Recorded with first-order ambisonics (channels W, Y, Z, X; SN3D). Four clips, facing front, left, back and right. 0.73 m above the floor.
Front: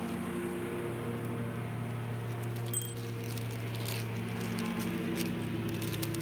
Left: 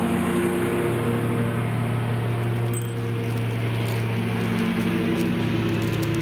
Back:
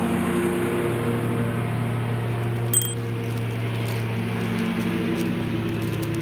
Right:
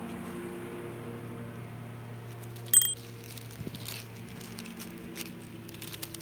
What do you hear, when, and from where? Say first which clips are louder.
0.0 s a lawn mower: left 17 dB, back 14 dB; 130° left; by 6.2 s 120° left
2.7 s a bicycle bell: right 1 dB, back 13 dB; 135° right